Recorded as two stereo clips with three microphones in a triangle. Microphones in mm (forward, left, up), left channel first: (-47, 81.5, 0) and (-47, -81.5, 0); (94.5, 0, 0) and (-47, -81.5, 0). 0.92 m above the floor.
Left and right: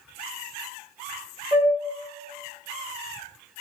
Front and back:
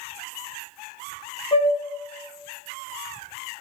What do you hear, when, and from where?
1.5 s a flute: 30° right, 0.8 m